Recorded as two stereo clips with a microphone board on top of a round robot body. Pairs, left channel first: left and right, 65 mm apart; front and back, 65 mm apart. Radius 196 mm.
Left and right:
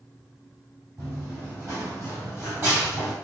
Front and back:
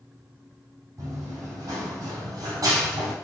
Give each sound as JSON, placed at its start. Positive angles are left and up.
{"t": 1.0, "sound": "running footsteps", "azimuth_deg": -140, "distance_m": 3.5}